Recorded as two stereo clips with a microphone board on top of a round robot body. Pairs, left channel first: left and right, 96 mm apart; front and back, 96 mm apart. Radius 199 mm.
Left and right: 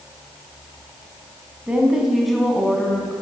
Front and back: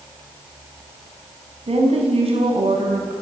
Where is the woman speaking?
170° right, 4.5 m; by 3.1 s 170° left, 5 m.